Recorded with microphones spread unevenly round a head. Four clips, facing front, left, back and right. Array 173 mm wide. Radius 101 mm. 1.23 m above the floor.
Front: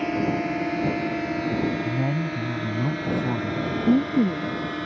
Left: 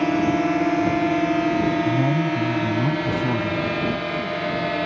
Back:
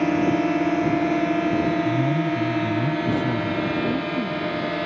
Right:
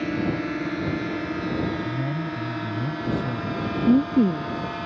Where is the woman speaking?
50° right.